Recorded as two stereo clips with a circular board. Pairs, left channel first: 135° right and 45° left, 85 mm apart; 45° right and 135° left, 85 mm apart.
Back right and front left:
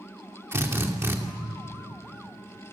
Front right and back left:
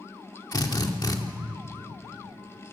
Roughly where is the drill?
Ahead.